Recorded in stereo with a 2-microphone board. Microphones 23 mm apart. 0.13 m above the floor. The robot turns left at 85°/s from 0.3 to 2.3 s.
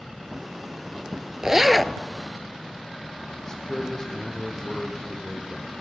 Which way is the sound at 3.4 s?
20° left (ahead or behind).